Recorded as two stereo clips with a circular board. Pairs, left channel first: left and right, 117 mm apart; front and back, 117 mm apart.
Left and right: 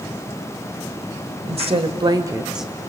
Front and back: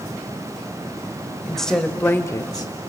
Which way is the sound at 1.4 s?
90° right.